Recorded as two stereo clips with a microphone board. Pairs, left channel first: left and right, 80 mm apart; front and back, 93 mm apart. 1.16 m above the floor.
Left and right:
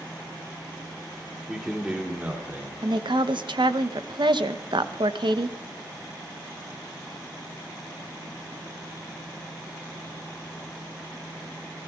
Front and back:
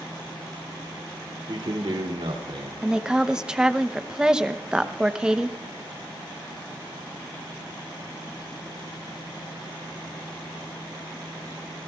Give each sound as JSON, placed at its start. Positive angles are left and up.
{"t": 1.5, "sound": "a man speaking", "azimuth_deg": -175, "distance_m": 2.5}
{"t": 2.8, "sound": "a woman speaking", "azimuth_deg": -100, "distance_m": 0.7}